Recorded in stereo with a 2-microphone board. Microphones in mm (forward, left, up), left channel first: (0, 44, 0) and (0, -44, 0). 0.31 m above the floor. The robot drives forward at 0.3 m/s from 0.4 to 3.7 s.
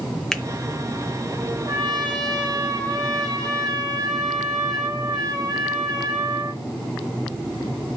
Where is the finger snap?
5° left (ahead or behind), 0.7 m.